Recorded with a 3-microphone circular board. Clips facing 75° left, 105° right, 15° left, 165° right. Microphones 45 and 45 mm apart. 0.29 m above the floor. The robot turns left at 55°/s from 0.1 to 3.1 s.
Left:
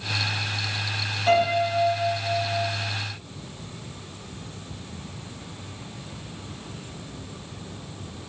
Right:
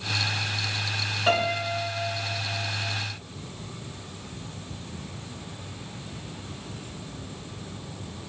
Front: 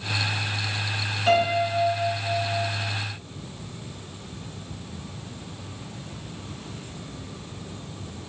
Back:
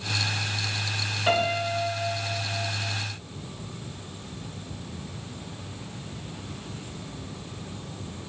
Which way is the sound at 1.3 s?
100° right.